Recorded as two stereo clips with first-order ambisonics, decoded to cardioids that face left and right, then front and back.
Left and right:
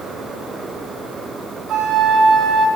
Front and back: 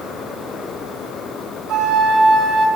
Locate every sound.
1.7 s a flute: 135° right, 0.7 m